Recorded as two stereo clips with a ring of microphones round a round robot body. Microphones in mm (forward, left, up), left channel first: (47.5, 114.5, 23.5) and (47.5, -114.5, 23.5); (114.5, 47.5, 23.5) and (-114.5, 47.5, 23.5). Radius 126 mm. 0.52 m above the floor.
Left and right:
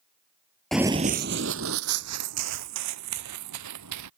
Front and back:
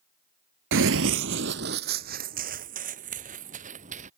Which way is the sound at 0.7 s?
175° left.